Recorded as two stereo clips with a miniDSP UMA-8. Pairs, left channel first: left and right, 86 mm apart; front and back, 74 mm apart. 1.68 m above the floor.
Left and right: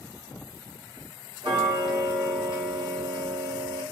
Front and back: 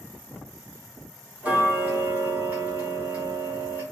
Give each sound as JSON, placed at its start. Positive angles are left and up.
{"t": 1.4, "sound": "ticking", "azimuth_deg": -110, "distance_m": 1.9}